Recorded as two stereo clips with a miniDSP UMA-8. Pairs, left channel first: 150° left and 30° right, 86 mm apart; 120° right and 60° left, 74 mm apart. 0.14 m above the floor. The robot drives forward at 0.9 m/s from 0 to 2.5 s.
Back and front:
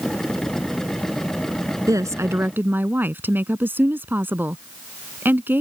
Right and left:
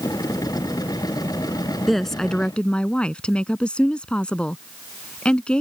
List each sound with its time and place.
1.9 s a woman speaking: 30° right; by 5.6 s 60° right